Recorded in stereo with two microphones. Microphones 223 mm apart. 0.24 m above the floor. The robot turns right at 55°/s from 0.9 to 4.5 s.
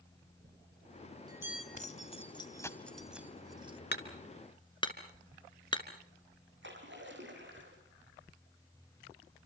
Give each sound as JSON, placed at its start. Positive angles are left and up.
{"t": 0.4, "sound": "a bell", "side_deg": -40, "distance_m": 3.0}
{"t": 1.8, "sound": "keys jangling", "side_deg": 35, "distance_m": 1.0}
{"t": 3.9, "sound": "hammering", "side_deg": 50, "distance_m": 2.5}
{"t": 6.6, "sound": "a splash", "side_deg": -55, "distance_m": 5.5}